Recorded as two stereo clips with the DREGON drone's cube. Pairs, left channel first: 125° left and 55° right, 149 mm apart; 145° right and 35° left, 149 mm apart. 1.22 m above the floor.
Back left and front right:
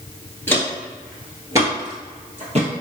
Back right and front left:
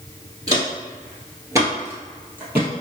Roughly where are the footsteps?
Ahead left.